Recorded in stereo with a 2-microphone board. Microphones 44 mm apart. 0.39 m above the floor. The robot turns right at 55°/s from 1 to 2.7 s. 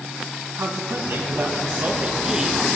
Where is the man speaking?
90° right, 3 m; by 2.8 s straight ahead, 3 m.